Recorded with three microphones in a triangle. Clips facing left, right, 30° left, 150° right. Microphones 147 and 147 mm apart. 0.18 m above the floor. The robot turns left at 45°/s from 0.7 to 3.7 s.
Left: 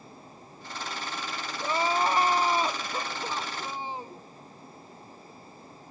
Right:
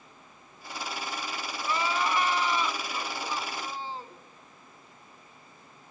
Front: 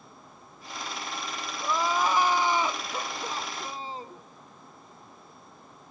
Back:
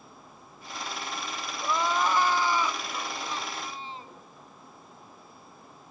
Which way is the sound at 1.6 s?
125° left.